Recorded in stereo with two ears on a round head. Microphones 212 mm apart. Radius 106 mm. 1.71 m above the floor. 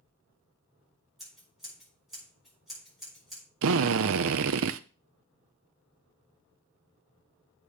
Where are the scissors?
Centre (ahead or behind), 6 m.